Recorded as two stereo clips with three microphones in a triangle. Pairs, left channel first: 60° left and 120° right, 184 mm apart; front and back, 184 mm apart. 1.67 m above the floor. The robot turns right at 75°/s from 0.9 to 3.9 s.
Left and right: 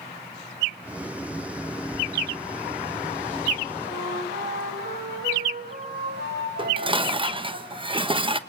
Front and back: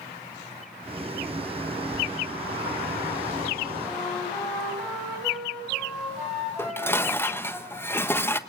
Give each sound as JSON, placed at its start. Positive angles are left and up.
{"t": 3.8, "sound": "a flute", "azimuth_deg": -95, "distance_m": 8.5}
{"t": 6.6, "sound": "dishes clattering", "azimuth_deg": -70, "distance_m": 1.0}